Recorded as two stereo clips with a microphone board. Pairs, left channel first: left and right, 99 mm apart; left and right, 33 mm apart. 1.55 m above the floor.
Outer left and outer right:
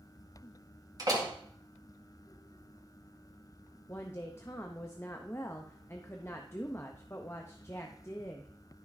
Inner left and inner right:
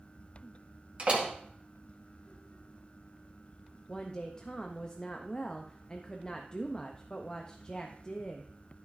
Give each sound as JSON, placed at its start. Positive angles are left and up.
{"t": 1.0, "sound": "a door slam", "side_deg": -40, "distance_m": 1.9}
{"t": 3.9, "sound": "a woman speaking", "side_deg": 25, "distance_m": 0.6}